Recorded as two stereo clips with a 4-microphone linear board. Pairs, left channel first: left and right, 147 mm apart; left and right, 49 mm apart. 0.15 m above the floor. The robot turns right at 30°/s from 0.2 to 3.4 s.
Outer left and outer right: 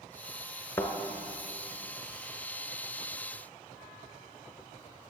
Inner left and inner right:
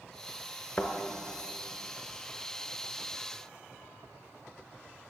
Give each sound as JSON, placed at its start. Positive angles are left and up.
{"t": 0.8, "sound": "a thud", "side_deg": 20, "distance_m": 0.8}